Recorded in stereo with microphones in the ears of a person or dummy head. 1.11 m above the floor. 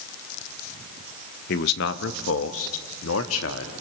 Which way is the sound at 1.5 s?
50° left (ahead or behind).